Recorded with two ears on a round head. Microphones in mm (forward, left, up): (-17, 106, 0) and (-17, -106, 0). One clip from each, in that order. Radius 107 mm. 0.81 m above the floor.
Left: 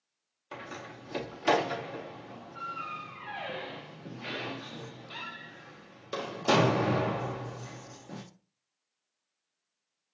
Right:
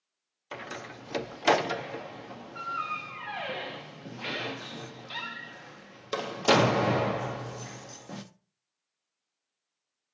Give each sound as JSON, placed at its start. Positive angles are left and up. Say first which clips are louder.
{"t": 0.5, "sound": "a door slam", "louder": "right 3 dB", "side_deg": -35, "distance_m": 0.6}